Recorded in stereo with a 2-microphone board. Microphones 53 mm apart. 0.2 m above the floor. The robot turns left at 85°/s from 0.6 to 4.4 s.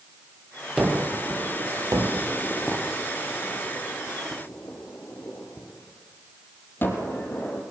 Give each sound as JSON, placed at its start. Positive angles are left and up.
{"t": 0.8, "sound": "a gunshot", "side_deg": -10, "distance_m": 4.0}